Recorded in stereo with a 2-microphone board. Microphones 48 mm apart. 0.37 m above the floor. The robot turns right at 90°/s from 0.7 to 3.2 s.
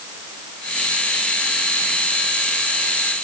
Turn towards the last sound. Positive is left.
No sound to turn to.